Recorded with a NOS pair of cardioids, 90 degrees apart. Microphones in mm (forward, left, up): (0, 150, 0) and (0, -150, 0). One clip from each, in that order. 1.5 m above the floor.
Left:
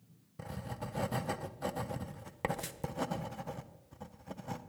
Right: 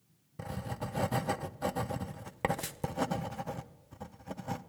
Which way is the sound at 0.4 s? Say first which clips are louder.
Right 3 dB; 15° right.